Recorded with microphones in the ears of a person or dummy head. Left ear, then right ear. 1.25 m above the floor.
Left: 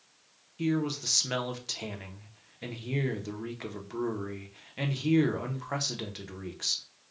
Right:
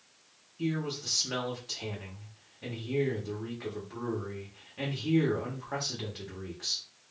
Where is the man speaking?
75° left (ahead or behind), 0.7 m.